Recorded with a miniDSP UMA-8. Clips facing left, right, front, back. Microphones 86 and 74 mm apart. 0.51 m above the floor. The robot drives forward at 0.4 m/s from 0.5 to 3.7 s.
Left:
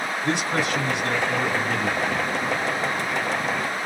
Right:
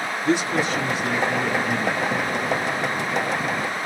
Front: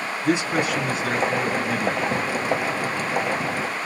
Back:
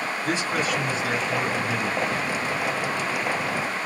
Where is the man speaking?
80° left, 2.5 m; by 2.3 s 100° left, 2.5 m.